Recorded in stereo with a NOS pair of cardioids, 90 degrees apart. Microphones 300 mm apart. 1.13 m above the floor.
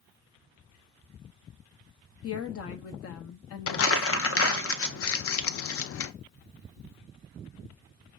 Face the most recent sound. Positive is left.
turn(degrees=50)